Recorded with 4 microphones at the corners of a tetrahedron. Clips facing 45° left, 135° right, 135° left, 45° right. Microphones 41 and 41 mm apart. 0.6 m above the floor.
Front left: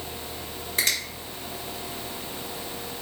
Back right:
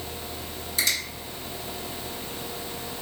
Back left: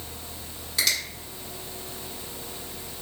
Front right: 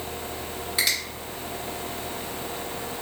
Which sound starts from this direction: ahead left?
A finger snap, at 0.8 s.